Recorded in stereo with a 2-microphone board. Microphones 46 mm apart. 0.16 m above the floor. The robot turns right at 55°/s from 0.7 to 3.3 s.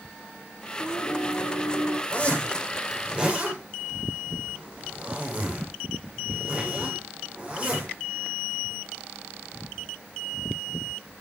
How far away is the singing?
About 6.5 m.